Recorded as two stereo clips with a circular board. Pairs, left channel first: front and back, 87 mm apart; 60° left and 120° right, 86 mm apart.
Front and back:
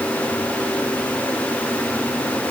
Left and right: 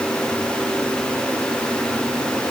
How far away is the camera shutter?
No camera shutter in this recording.